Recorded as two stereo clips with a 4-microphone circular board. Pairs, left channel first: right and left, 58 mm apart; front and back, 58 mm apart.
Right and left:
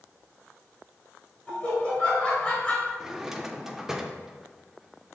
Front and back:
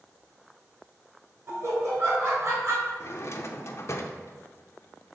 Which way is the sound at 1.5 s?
150° right.